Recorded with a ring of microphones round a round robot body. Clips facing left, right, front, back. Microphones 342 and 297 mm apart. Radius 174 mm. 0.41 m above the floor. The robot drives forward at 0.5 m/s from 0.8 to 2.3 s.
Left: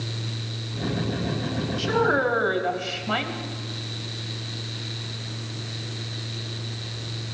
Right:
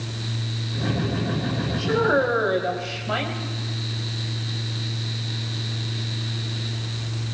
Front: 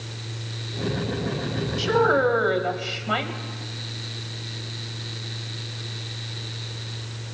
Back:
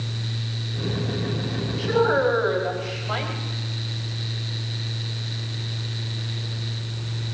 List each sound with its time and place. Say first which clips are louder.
1.8 s a woman speaking: right 2 dB, even; 20° left, 3 m